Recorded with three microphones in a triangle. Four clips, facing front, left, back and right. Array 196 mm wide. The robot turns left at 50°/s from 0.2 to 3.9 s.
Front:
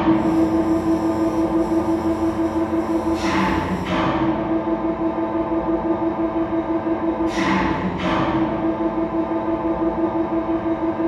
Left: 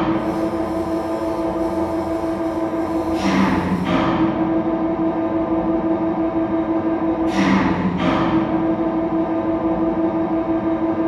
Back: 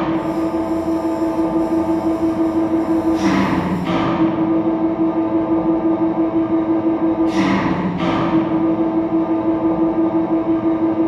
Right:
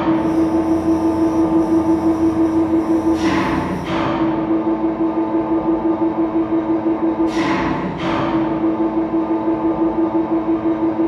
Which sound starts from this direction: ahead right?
An engine running, at 0.0 s.